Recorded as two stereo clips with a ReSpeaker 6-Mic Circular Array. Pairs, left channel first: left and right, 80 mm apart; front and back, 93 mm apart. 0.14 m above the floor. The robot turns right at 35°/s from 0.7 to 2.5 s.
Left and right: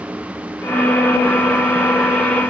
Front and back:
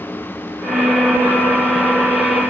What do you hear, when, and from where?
Only background noise.